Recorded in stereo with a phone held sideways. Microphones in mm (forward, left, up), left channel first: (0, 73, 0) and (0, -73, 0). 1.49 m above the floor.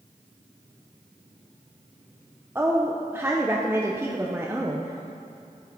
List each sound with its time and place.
2.5 s a woman speaking: 15° right (ahead or behind), 0.9 m